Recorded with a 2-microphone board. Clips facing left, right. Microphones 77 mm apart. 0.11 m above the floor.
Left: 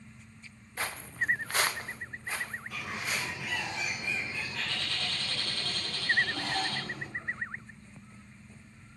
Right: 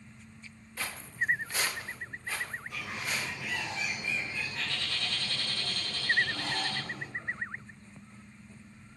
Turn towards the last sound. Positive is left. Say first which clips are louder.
# left 2 dB
turn(degrees=75)  # may be behind; listen again after turning